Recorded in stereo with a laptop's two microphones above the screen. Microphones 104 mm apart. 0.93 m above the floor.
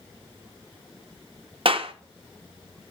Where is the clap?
55° right (ahead or behind), 0.7 m.